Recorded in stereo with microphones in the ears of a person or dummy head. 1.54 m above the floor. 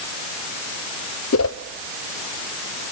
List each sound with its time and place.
1.3 s a whoosh: 75° left (ahead or behind), 0.9 m